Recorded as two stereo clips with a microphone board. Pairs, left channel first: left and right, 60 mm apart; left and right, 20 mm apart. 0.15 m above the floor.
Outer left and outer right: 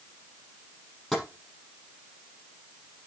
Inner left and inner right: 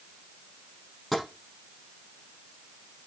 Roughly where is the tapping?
Centre.